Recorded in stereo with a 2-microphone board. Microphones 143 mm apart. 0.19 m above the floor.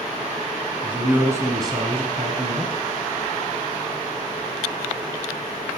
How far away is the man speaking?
About 1.6 m.